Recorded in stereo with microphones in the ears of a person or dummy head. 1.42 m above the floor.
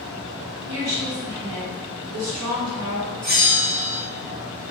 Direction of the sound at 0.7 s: 70° right (ahead or behind).